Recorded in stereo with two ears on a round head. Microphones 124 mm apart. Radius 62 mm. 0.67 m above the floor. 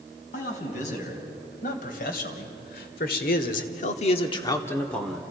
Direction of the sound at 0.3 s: 60° left (ahead or behind).